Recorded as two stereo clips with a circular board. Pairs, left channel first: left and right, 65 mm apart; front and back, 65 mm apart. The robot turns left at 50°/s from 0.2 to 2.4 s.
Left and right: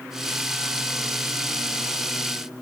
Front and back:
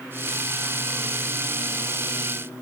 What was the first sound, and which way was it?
Only background noise.